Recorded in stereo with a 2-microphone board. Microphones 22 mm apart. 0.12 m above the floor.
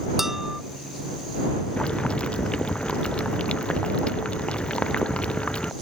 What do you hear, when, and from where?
0.2 s dishes clattering: 15° right (ahead or behind)
1.8 s boiling: 60° left (ahead or behind)